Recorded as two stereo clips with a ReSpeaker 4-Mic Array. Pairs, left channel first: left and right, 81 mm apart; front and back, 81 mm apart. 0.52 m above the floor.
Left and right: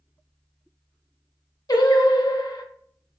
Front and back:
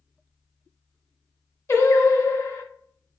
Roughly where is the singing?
Ahead left.